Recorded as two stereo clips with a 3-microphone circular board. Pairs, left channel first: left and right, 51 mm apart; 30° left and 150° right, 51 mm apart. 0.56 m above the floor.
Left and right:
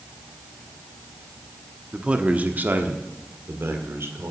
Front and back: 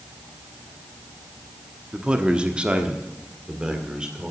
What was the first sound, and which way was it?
A man speaking, 120° right.